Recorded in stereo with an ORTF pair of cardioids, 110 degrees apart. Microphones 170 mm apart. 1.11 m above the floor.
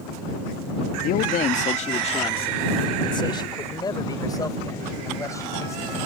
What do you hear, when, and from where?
1.0 s a man speaking: 60° left; by 6.0 s 15° left